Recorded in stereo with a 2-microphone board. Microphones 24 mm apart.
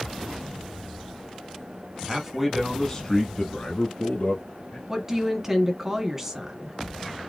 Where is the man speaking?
20° right (ahead or behind), 1.2 m; by 4.8 s 45° left (ahead or behind), 2 m.